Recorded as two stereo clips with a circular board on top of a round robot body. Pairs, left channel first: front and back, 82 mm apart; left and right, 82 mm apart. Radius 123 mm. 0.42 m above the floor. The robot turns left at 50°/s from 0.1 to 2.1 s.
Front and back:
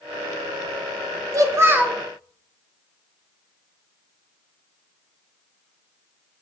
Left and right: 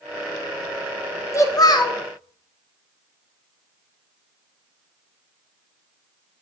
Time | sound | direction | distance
1.3 | a child speaking | 135° left | 0.7 m